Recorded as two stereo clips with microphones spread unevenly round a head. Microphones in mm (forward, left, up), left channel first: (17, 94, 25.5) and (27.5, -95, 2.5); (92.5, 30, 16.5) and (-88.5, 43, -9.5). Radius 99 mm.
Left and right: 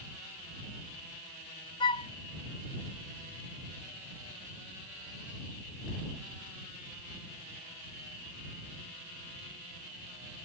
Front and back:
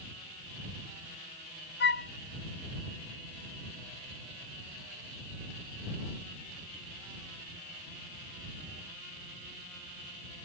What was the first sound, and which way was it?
A flute, 25° left.